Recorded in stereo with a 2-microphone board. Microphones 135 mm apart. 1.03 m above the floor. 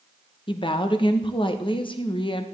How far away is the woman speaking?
About 1.0 m.